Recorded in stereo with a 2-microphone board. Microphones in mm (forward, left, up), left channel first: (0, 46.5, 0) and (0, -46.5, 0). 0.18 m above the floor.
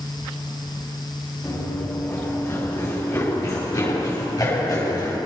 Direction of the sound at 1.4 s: 25° left (ahead or behind).